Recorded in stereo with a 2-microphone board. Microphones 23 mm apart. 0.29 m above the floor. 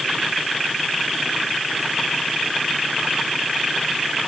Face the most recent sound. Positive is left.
No sound to turn to.